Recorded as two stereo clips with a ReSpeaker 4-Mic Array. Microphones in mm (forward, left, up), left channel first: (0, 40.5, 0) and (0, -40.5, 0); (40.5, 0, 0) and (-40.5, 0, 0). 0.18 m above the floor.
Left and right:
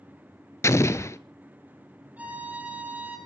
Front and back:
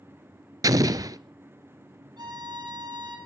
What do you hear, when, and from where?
0.6 s an explosion: 140° left, 0.7 m
2.2 s a violin: 160° right, 5 m